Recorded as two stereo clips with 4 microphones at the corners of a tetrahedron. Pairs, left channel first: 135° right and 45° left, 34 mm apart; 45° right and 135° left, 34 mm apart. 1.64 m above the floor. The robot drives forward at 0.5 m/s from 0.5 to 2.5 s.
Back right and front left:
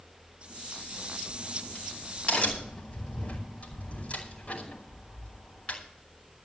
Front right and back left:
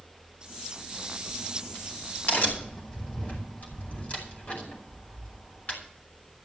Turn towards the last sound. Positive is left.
turn(degrees=-85)